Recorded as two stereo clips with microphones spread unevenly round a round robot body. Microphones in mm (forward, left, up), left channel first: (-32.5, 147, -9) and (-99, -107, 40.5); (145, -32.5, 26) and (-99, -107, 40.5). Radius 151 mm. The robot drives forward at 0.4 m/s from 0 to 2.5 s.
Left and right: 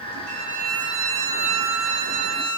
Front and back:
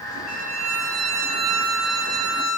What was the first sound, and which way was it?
A violin, 135° right.